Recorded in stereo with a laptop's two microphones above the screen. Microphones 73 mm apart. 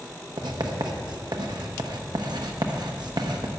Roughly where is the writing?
Right.